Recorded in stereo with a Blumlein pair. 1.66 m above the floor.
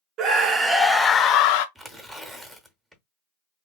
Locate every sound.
0.2 s a scream: 35° right, 0.7 m; by 1.6 s 45° left, 0.6 m
1.8 s tearing paper: 10° right, 0.7 m